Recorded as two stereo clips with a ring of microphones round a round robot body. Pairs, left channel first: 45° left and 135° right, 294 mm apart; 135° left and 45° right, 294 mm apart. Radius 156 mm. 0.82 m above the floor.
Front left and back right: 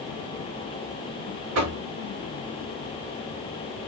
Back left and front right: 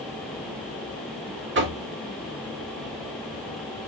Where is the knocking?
100° right, 1.9 m.